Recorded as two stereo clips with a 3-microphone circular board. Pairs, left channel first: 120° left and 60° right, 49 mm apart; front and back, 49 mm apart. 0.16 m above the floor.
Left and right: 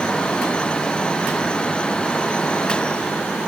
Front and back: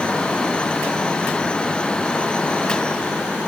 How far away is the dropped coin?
No dropped coin in this recording.